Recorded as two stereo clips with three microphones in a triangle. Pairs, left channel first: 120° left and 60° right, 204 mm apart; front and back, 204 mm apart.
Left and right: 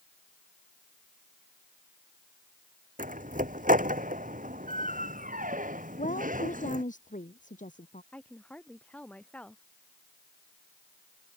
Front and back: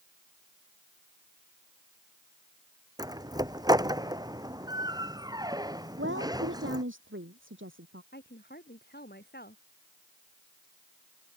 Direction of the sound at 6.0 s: 170° left.